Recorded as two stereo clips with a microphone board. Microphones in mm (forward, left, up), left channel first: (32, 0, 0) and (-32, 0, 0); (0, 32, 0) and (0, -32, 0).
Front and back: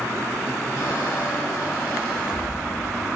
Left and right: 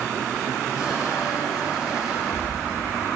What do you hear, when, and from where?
0.8 s a squeak: 15° right, 8 m